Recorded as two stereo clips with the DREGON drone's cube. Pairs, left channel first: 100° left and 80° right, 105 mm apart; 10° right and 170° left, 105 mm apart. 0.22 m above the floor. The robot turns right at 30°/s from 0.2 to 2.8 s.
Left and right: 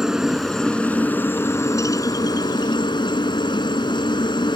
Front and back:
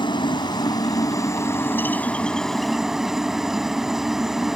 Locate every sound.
0.0 s a helicopter: 5° left; by 4.6 s 85° left